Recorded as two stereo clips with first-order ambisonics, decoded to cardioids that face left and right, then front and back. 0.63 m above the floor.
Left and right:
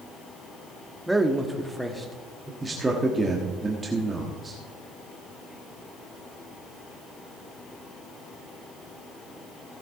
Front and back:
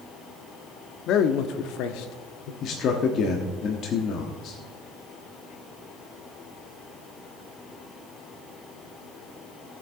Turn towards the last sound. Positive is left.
turn(degrees=-15)